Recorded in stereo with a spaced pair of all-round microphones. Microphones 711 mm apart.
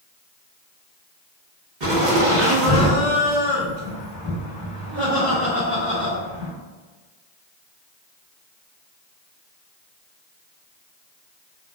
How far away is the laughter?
About 1.2 m.